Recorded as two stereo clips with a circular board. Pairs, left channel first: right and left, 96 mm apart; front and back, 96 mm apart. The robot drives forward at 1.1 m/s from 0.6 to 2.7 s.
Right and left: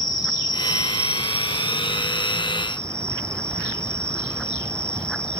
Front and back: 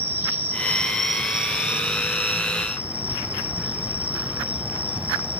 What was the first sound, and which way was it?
An insect, 120° right.